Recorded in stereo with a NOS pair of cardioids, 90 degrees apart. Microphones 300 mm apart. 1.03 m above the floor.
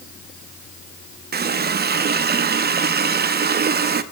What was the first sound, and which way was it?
A running tap, 30° right.